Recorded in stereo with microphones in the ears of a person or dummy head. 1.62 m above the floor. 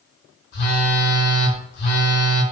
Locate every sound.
0.5 s a phone buzzing: 40° left (ahead or behind), 0.7 m